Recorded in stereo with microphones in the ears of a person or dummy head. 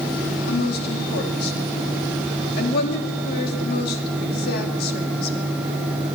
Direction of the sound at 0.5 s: 60° left (ahead or behind).